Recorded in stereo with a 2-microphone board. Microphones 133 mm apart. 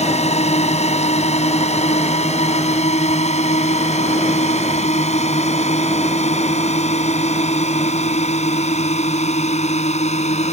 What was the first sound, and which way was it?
A drone, 55° left (ahead or behind).